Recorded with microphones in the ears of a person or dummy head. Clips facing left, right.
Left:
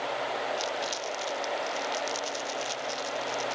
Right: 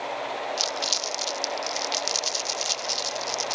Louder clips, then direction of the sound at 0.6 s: Right 1 dB; 65° right (ahead or behind).